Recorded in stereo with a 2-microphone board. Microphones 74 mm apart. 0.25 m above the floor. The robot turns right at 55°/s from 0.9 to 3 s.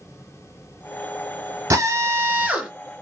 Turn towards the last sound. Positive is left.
turn(degrees=0)